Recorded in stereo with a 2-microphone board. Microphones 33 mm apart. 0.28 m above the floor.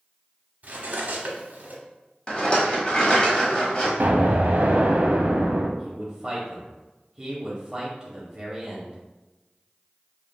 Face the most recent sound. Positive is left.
turn(degrees=-20)  # may be behind; listen again after turning